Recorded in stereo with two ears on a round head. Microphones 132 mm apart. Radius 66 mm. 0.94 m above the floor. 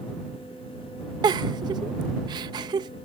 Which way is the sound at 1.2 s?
25° right (ahead or behind).